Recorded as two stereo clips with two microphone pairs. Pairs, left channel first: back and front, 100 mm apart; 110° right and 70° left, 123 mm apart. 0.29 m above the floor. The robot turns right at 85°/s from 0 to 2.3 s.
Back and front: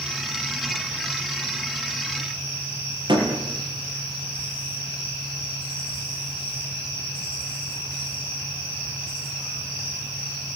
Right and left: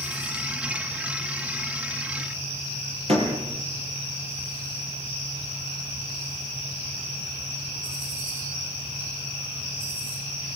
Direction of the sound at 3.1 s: 40° left.